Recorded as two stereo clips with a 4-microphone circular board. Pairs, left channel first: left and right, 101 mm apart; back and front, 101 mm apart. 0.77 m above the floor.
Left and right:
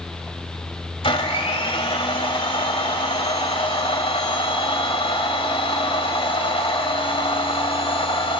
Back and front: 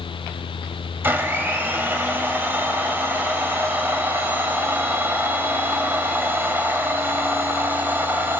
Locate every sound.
1.0 s a blender: 70° left, 1.6 m